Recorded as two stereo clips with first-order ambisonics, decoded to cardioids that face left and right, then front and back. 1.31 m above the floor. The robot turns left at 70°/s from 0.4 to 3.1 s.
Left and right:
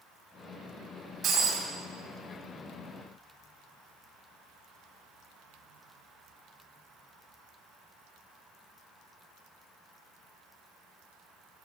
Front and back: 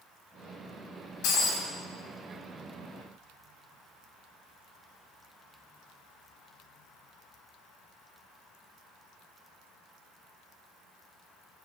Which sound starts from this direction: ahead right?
Breaking glass, at 1.2 s.